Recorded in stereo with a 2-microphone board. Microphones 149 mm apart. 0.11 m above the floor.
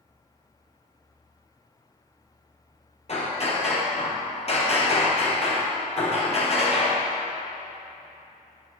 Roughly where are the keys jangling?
No keys jangling in this recording.